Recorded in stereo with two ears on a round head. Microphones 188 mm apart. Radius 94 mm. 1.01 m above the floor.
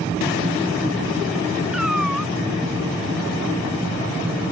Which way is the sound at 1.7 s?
Centre (ahead or behind).